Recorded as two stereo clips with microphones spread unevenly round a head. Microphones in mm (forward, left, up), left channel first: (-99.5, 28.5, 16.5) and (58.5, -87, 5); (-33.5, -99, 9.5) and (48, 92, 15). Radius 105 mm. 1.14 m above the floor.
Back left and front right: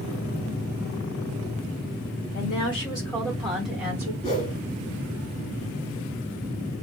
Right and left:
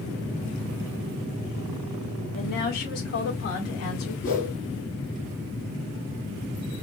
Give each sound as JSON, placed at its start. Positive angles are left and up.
{"t": 2.3, "sound": "a woman speaking", "azimuth_deg": -160, "distance_m": 1.4}
{"t": 4.2, "sound": "a whoosh", "azimuth_deg": -160, "distance_m": 1.7}